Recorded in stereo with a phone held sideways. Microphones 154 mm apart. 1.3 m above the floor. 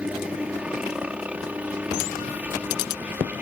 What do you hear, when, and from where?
0.0 s a helicopter: 5° right (ahead or behind); by 3.4 s 10° right (ahead or behind)